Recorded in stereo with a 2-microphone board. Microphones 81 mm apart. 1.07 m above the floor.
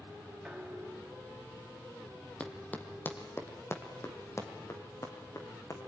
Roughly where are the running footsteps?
Centre.